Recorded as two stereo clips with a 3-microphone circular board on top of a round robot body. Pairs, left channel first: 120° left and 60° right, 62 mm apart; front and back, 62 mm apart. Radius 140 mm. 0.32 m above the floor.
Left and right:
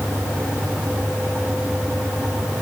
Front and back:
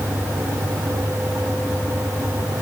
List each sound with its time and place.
Only background noise.